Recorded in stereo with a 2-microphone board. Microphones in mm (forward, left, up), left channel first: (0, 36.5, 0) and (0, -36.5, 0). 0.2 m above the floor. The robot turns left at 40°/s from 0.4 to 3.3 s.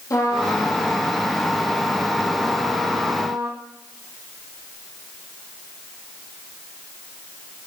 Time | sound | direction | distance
0.1 | a trumpet | 55° left | 4.5 m